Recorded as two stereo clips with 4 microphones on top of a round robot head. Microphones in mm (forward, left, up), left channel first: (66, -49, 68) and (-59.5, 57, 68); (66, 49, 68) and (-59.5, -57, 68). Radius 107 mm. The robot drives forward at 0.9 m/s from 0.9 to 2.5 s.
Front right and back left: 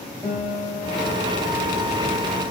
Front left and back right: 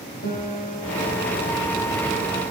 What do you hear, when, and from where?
0.2 s a guitar: 45° left, 4 m; by 2.2 s 65° left, 3.5 m